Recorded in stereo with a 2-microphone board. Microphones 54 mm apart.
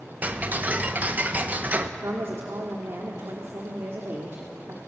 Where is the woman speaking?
55° right (ahead or behind), 2 m.